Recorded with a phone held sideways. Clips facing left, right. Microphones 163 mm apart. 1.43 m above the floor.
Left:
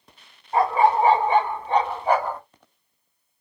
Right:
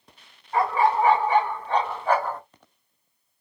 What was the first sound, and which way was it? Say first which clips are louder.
A dog barking: left 3 dB; 30° left (ahead or behind).